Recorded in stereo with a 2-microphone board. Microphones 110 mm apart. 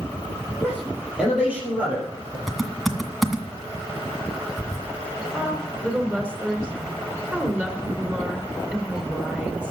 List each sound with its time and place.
0.6 s a man speaking: 5° right (ahead or behind), 6 m; by 2.4 s 15° right (ahead or behind), 5 m
2.5 s typing on a keyboard: centre (ahead or behind), 1.9 m
5.3 s a woman speaking: 15° right (ahead or behind), 3 m